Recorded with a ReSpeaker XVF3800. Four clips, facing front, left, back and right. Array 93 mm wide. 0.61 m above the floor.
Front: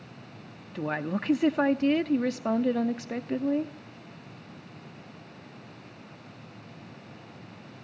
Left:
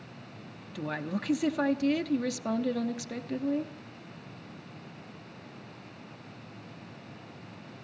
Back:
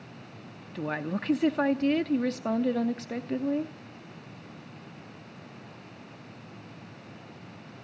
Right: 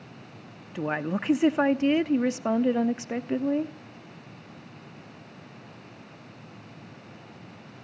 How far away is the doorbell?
I don't hear a doorbell.